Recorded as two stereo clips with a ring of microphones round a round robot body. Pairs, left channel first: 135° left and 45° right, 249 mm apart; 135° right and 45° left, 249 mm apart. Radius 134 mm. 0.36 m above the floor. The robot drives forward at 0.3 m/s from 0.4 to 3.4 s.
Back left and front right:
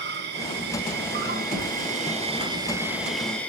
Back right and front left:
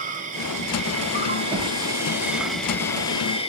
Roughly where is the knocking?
Behind left.